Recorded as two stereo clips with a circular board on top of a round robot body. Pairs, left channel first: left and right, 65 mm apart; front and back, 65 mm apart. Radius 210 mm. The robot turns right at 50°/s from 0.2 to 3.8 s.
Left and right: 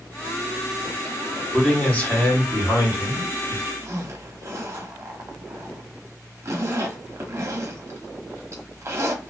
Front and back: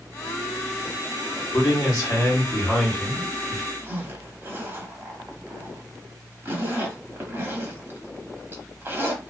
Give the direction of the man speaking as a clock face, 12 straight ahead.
12 o'clock.